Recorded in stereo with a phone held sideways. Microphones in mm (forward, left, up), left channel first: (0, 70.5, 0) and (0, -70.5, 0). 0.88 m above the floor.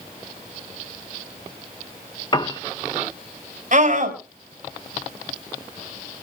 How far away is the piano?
About 0.7 m.